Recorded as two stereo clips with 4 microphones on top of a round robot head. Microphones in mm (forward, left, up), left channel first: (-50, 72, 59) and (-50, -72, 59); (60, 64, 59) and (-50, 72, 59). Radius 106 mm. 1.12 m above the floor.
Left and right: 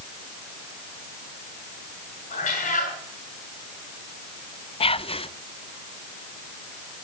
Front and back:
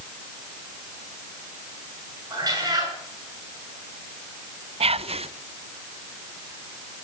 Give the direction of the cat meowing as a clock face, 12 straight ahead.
8 o'clock.